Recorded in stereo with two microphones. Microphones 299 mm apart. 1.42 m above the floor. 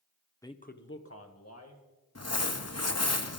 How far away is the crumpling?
About 0.8 m.